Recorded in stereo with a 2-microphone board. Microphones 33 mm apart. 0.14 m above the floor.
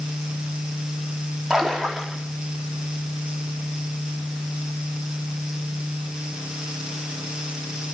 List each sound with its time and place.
1.5 s a splash: centre (ahead or behind), 5 m